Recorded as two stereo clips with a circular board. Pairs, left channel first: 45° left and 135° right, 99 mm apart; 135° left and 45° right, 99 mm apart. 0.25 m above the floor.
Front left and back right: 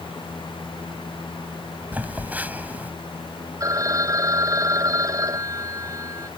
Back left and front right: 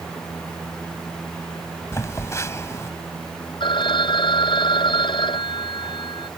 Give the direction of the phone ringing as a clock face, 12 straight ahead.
6 o'clock.